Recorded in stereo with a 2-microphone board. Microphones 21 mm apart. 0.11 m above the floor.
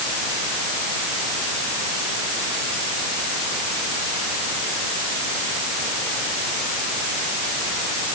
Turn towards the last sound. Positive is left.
No sound to turn to.